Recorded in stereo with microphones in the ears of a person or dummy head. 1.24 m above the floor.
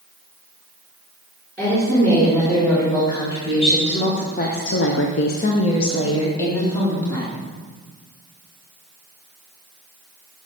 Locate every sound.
1.6 s a woman speaking: 15° left (ahead or behind), 4 m; by 7.3 s 10° left (ahead or behind), 3 m